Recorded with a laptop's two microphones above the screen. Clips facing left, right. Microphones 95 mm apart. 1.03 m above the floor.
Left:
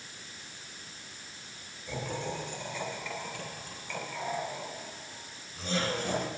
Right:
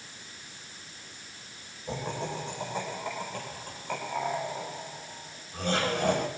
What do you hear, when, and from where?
1.9 s laughter: 35° right (ahead or behind), 9 m; by 6.3 s 70° right (ahead or behind), 6 m